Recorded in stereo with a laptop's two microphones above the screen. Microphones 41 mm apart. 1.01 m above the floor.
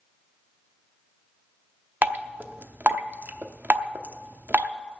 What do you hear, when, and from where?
2.0 s dripping: 50° right (ahead or behind), 0.7 m